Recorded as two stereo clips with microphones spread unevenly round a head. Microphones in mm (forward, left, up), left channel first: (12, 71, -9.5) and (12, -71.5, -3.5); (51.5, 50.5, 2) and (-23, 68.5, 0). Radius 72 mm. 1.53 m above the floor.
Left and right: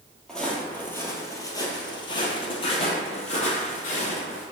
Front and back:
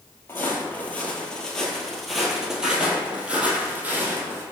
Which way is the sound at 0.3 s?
5° left.